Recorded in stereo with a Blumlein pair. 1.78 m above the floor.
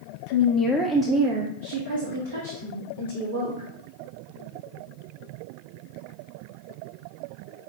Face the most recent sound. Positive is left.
turn(degrees=-75)